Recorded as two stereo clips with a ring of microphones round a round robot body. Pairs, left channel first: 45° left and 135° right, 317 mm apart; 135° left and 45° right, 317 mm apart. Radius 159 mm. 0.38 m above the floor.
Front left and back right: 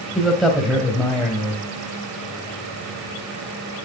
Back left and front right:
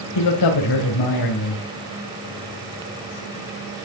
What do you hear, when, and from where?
0.1 s a man speaking: 135° left, 2.5 m